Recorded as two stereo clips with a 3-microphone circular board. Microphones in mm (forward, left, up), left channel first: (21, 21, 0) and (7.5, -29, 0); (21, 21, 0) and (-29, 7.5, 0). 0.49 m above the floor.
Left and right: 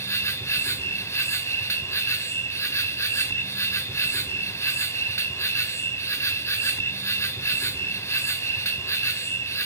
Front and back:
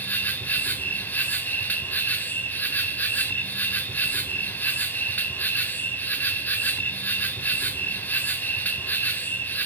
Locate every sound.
0.0 s an insect: 65° left, 1.2 m